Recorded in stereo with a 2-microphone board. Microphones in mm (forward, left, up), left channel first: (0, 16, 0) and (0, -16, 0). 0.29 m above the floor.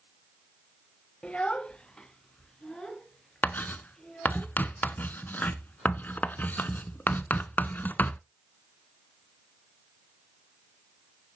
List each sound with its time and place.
1.2 s a child speaking: 30° left (ahead or behind), 0.5 m; by 4.4 s 20° left (ahead or behind), 4 m
3.4 s writing: 65° left (ahead or behind), 0.6 m